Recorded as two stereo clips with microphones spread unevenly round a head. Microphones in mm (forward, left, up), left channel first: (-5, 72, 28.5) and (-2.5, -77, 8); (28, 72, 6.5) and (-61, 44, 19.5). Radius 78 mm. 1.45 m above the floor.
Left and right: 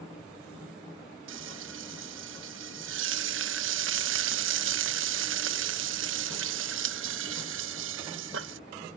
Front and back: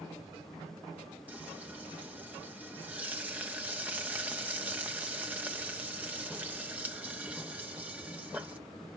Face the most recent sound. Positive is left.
turn(degrees=-85)